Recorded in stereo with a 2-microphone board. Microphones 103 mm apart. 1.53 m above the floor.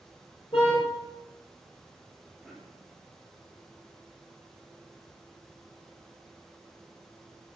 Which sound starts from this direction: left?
A car horn, at 0.5 s.